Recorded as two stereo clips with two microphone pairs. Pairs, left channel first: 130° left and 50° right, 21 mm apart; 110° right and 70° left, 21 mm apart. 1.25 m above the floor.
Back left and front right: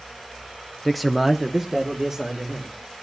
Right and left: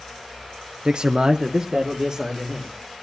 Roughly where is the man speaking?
Ahead left.